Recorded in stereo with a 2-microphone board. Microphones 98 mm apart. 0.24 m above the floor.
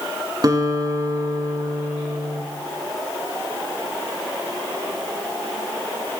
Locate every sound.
0.4 s a guitar: 40° right (ahead or behind), 1.4 m